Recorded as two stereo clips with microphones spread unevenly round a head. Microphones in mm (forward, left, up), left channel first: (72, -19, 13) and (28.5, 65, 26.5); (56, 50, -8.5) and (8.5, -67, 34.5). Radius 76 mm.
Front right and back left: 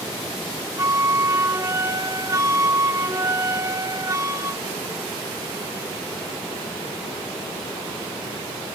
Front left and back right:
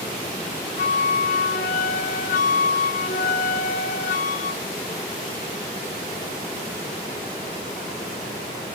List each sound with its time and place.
0.8 s a flute: 65° left, 1.3 m